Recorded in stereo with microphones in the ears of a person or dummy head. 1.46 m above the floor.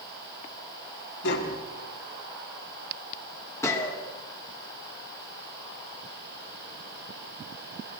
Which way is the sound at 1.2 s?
60° left (ahead or behind).